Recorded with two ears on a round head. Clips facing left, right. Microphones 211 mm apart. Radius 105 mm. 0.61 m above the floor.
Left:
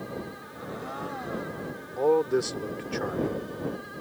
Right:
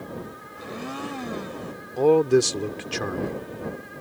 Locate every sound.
0.6 s a blender: 50° right (ahead or behind)
2.0 s a man speaking: 55° right (ahead or behind)